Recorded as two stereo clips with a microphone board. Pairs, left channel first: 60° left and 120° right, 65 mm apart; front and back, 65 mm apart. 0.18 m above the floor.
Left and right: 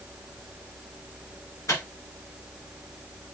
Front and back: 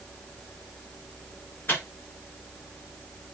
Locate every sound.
1.7 s a microwave: 50° left, 2.5 m